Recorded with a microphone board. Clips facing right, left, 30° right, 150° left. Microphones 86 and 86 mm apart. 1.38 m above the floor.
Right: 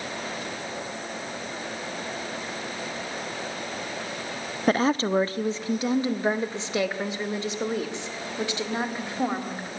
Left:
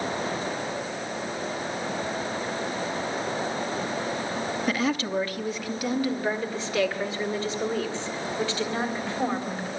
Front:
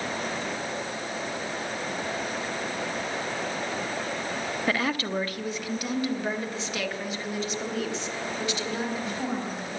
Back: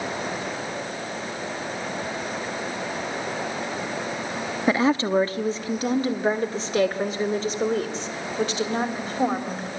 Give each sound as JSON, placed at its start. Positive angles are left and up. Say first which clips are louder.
{"t": 4.7, "sound": "a woman speaking", "louder": "right 7 dB, back 8 dB", "azimuth_deg": -140, "distance_m": 0.6}